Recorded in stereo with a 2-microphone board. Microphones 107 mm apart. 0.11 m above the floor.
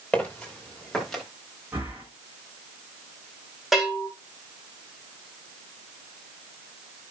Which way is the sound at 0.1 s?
15° left (ahead or behind).